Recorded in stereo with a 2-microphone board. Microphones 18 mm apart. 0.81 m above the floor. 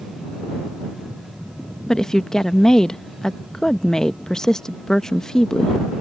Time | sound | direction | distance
1.9 | a woman speaking | 30° left (ahead or behind) | ?